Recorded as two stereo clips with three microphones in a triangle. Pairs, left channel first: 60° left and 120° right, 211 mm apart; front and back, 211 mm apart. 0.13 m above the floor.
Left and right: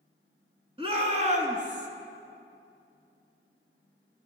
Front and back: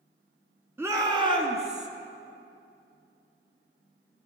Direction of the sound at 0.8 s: 115° right.